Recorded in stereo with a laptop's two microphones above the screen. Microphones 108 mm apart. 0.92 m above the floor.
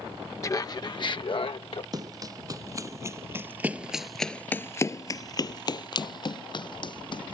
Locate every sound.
0.4 s laughter: 30° left (ahead or behind); by 1.8 s 60° left (ahead or behind)
1.9 s running footsteps: 35° right (ahead or behind); by 7.3 s 50° left (ahead or behind)